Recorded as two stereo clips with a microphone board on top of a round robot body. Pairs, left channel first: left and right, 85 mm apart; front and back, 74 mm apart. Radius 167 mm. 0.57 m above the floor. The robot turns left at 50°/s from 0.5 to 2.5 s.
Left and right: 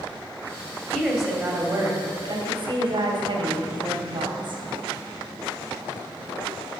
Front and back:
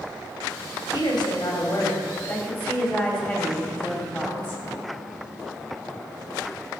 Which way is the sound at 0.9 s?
15° left.